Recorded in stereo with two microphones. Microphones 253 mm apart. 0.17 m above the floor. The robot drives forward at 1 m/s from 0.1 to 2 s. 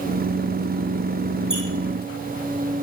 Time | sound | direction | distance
1.5 | a squeak | 50° left (ahead or behind) | 2.5 m